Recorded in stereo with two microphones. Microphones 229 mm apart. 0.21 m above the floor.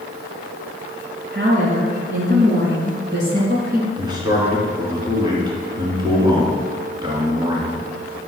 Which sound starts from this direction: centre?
A man speaking, at 4.0 s.